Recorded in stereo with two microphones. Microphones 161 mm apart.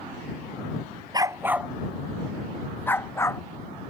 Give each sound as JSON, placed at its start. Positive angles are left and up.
{"t": 1.1, "sound": "a dog barking", "side_deg": -25}